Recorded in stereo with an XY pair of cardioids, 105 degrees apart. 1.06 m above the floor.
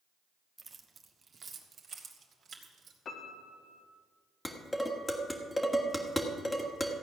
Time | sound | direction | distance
0.6 | keys jangling | 30° right | 1.2 m
3.0 | a piano | 55° left | 1.5 m
4.5 | dishes clattering | 10° left | 1.6 m